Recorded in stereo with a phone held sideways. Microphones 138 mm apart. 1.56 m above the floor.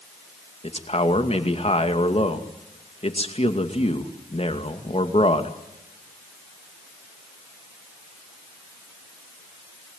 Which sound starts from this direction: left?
A man speaking, at 0.6 s.